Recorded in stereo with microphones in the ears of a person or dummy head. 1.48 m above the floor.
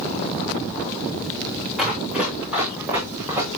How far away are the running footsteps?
About 7.5 m.